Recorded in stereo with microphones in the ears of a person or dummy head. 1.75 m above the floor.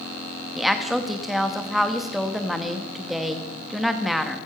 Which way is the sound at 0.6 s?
5° right (ahead or behind).